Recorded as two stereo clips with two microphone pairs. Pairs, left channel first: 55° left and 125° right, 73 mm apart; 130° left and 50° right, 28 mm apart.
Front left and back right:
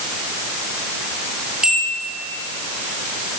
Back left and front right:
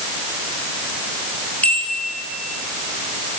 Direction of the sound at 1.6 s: 155° left.